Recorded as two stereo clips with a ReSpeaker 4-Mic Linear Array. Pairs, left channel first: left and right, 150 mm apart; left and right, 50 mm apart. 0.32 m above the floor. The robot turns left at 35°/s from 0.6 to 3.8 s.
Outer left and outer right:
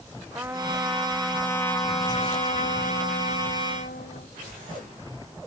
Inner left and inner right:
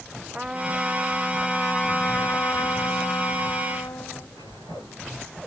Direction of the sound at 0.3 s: 165° right.